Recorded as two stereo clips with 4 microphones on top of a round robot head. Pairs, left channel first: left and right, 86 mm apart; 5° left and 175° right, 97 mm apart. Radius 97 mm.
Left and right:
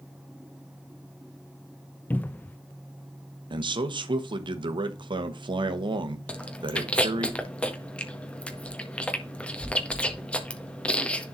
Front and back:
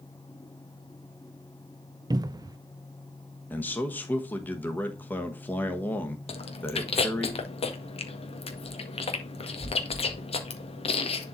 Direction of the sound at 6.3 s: 15° left.